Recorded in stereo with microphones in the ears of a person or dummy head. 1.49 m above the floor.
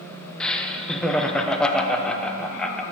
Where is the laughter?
5° left (ahead or behind), 0.9 m.